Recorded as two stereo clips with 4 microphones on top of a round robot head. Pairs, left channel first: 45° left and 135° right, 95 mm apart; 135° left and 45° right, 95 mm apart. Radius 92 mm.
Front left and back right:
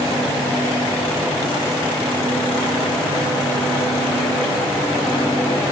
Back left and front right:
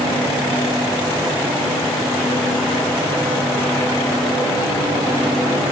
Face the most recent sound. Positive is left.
No sound to turn to.